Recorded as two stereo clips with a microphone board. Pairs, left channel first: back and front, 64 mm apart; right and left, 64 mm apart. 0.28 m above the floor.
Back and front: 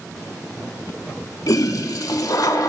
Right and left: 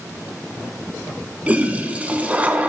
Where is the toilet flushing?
160° left, 0.7 m.